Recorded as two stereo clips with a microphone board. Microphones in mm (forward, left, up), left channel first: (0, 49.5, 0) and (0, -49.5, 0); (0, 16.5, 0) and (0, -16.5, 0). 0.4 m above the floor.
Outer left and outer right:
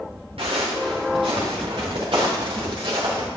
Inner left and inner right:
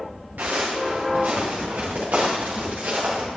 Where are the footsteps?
75° right (ahead or behind), 3.5 m; by 3.3 s 60° right (ahead or behind), 4.5 m.